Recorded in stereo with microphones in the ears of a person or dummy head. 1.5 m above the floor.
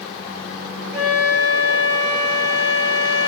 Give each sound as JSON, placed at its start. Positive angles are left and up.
{"t": 0.9, "sound": "a flute", "side_deg": -30, "distance_m": 1.4}